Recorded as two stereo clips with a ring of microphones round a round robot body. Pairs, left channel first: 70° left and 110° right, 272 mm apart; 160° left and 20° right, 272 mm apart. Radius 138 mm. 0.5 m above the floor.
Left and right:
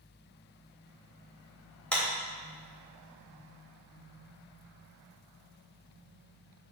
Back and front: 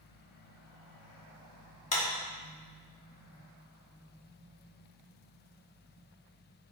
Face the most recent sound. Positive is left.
turn(degrees=150)